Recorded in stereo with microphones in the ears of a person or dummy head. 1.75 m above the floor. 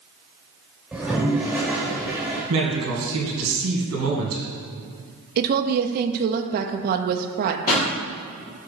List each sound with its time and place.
0.9 s a toilet flushing: centre (ahead or behind), 1.2 m
2.5 s a man speaking: 85° right, 2 m
5.4 s a woman speaking: 55° right (ahead or behind), 0.7 m
7.7 s a pop: 40° left (ahead or behind), 2.5 m